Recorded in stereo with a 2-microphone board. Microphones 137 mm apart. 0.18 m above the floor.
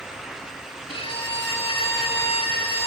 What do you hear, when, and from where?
0.9 s a violin: 40° left (ahead or behind), 1.1 m